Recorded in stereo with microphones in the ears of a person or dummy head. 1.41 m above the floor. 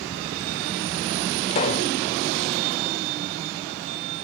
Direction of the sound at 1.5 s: 30° left (ahead or behind).